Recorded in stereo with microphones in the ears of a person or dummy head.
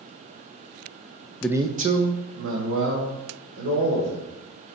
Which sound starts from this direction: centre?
A man speaking, at 1.4 s.